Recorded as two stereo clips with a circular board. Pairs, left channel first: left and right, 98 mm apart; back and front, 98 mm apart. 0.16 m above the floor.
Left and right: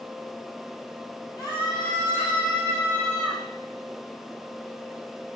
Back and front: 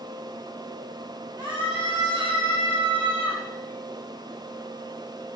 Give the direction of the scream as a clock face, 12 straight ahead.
11 o'clock.